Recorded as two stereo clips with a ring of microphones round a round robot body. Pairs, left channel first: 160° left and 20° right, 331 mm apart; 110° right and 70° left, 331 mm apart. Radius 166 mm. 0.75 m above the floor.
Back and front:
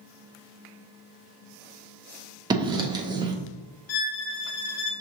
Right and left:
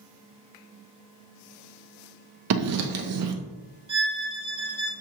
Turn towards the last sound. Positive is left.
turn(degrees=140)